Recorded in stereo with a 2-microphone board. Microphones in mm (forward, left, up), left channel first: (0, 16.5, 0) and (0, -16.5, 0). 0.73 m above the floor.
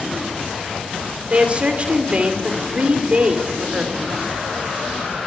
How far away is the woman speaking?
About 2.5 m.